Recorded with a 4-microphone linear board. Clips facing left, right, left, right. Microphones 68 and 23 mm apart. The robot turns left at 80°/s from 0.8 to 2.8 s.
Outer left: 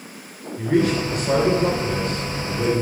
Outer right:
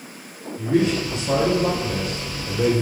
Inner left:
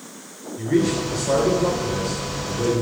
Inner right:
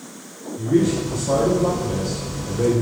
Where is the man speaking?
100° left, 2 m; by 2.8 s 60° right, 2 m.